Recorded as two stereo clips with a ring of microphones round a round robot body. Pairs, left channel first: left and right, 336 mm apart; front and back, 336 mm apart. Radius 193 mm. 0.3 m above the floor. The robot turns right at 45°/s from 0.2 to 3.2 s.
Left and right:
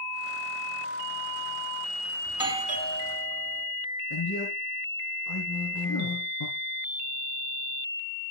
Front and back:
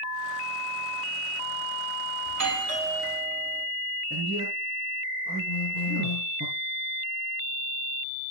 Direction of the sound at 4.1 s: 100° left.